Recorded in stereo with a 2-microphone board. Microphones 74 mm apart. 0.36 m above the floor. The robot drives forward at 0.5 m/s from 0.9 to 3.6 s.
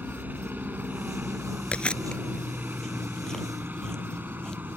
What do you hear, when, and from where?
0.0 s a helicopter: 25° right (ahead or behind)
1.7 s chewing: 15° left (ahead or behind); by 4.8 s 10° left (ahead or behind)